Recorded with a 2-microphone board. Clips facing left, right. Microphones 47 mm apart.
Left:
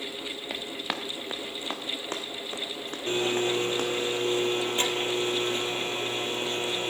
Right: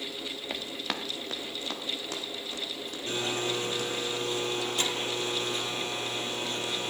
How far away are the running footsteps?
About 1.6 m.